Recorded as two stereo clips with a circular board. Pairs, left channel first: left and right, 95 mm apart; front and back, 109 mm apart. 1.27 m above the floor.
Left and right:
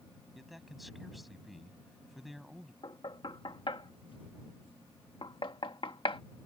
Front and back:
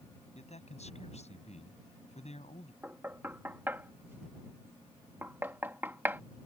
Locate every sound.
0.3 s a man speaking: straight ahead
2.8 s knocking: 110° left